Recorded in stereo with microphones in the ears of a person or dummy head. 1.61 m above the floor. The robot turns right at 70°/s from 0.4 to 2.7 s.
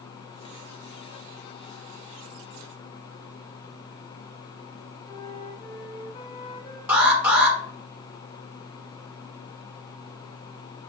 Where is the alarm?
5° right (ahead or behind), 2.5 m.